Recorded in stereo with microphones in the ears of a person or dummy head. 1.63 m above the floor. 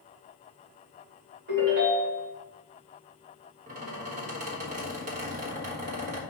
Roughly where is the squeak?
Right.